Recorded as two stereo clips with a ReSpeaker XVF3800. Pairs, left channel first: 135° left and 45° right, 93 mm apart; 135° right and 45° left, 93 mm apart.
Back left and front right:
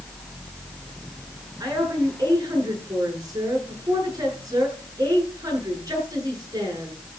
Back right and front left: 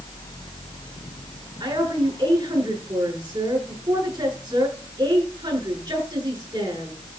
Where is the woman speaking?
5° left, 9 m.